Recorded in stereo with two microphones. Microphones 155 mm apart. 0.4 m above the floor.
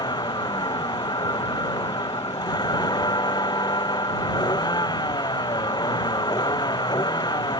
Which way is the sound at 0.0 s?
25° left (ahead or behind).